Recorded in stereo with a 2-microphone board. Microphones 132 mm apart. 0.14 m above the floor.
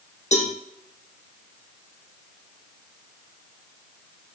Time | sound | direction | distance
0.3 | a cowbell | 60° left (ahead or behind) | 3 m